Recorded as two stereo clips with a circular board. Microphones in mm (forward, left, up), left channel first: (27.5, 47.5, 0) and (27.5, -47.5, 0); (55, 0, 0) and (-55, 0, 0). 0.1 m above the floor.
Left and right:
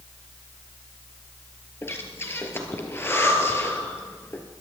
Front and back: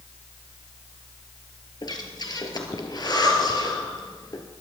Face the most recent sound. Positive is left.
turn(degrees=35)